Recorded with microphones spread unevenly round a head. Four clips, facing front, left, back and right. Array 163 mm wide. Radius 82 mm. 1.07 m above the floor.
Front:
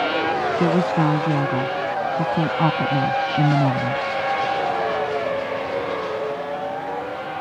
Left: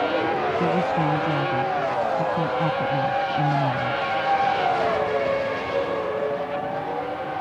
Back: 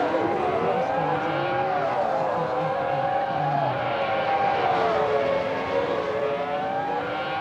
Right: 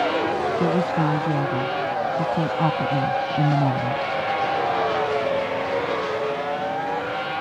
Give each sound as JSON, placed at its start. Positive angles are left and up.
{"t": 0.6, "sound": "a woman speaking", "azimuth_deg": -10}